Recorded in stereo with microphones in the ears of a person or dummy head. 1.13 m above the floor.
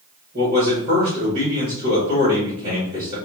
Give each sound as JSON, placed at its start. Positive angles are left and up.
{"t": 0.3, "sound": "a man speaking", "side_deg": -30, "distance_m": 1.5}